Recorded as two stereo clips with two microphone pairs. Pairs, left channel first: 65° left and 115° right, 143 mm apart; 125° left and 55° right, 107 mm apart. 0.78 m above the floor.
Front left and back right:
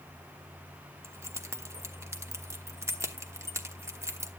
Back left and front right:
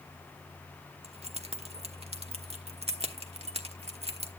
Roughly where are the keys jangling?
Ahead right.